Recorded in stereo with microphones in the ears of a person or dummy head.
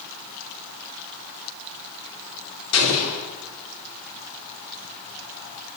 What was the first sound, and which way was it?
An explosion, 80° left.